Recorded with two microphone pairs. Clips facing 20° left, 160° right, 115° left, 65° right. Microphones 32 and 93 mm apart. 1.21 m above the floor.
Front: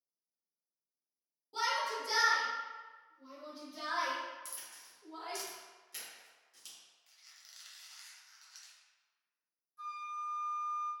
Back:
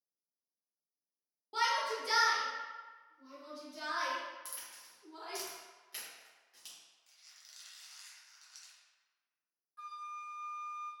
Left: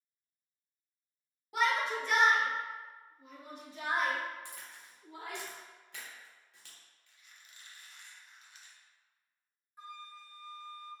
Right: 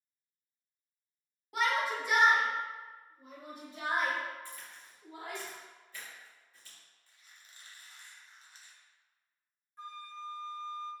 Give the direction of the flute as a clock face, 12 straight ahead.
6 o'clock.